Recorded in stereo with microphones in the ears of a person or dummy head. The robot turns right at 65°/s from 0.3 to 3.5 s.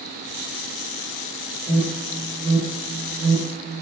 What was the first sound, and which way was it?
An alarm, 15° right (ahead or behind).